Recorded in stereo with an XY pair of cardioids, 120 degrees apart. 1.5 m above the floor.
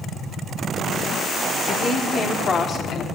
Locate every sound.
1.7 s a woman speaking: 40° left, 3.5 m; by 3.0 s 50° left, 3 m